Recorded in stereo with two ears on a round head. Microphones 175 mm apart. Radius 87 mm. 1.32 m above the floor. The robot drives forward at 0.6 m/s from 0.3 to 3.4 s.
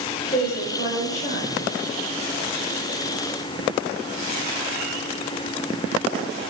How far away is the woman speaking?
About 5.5 m.